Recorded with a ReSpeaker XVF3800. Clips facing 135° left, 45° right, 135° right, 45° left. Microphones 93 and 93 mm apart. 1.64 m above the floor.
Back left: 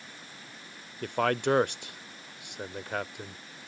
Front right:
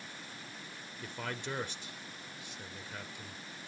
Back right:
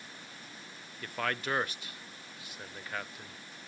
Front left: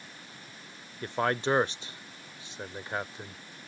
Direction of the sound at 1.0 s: 110° left.